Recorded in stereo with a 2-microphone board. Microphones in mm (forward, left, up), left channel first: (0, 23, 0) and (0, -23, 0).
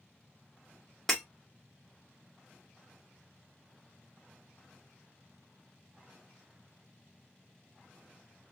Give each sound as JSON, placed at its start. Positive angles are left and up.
{"t": 1.1, "sound": "breaking glass", "side_deg": 5, "distance_m": 1.1}